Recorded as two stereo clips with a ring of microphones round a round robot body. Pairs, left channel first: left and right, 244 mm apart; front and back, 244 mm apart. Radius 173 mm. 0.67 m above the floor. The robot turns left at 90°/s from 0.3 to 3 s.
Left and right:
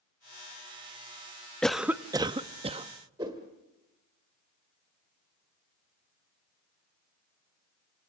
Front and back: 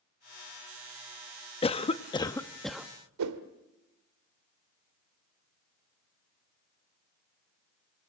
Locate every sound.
1.6 s a cough: 10° left, 0.7 m; by 2.9 s 105° right, 0.7 m
3.2 s a whoosh: 170° right, 1.5 m